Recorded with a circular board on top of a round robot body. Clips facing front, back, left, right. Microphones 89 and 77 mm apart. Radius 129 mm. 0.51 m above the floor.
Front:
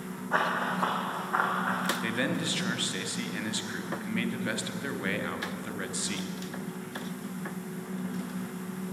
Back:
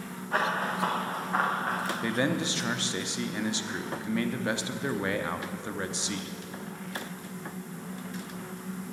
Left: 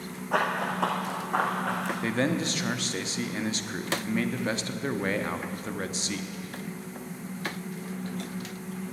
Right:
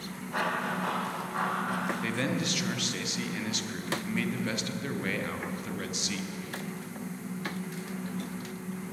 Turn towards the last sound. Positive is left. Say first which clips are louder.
# back 2 dB, left 4 dB
turn(degrees=125)